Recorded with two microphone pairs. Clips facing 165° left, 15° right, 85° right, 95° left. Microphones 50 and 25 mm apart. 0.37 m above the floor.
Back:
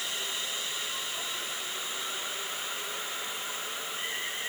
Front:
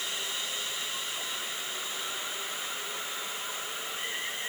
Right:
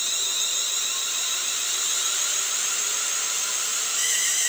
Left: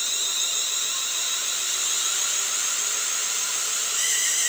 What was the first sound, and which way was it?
Only background noise.